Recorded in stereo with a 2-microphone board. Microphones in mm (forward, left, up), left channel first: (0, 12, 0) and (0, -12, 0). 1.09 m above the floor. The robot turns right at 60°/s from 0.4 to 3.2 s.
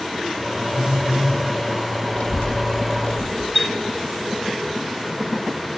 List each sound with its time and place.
0.7 s a phone buzzing: 55° right, 1.6 m; by 1.4 s 15° right, 1.6 m
2.1 s a child speaking: 55° left, 0.7 m; by 3.5 s 120° left, 0.7 m
3.5 s a chime: 10° right (ahead or behind), 0.7 m